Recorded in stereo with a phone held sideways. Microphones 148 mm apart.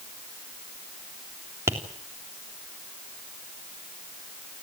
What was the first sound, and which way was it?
Tapping, 20° right (ahead or behind).